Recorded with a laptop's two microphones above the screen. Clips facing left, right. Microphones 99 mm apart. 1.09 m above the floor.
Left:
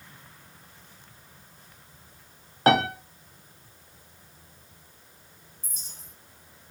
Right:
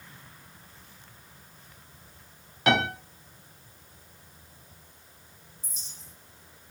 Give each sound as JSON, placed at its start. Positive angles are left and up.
{"t": 2.7, "sound": "a piano", "side_deg": 40, "distance_m": 0.6}
{"t": 5.6, "sound": "a clink", "side_deg": 45, "distance_m": 0.6}